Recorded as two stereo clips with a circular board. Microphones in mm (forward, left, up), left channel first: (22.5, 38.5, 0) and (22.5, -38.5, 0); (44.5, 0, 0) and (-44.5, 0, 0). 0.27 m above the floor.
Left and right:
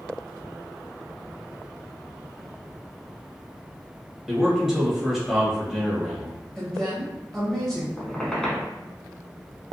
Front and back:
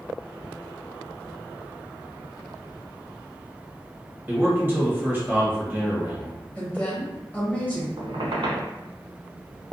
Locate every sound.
4.3 s a man speaking: 170° right, 0.9 m
6.5 s a woman speaking: 20° left, 1.1 m
8.0 s a squeak: 170° left, 0.6 m